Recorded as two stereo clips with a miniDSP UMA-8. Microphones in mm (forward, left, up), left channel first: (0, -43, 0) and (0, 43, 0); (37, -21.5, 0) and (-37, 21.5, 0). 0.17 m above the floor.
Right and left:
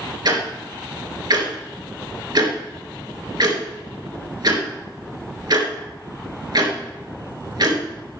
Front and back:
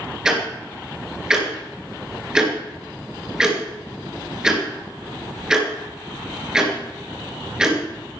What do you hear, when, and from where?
0.2 s ticking: 70° left, 3 m